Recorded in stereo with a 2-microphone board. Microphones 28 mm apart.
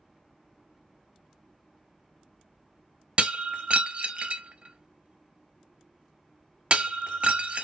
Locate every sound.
3.2 s breaking glass: 45° right (ahead or behind), 0.6 m